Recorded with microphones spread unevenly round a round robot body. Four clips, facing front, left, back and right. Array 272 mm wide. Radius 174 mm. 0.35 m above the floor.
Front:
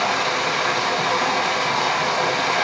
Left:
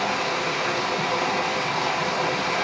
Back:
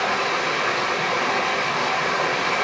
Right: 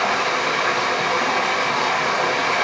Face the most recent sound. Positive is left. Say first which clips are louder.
# right 4 dB, front 1 dB
turn(degrees=65)